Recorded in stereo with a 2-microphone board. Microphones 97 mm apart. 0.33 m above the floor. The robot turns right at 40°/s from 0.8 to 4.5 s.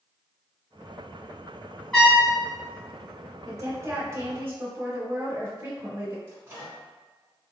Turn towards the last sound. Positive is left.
turn(degrees=-25)  # may be behind; listen again after turning